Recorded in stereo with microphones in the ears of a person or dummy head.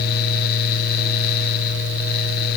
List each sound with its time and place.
Only background noise.